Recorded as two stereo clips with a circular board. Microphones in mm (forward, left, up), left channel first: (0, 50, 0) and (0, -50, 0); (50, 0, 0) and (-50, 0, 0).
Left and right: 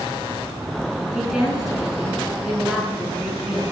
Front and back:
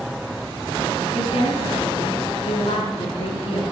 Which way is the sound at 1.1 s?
5° right.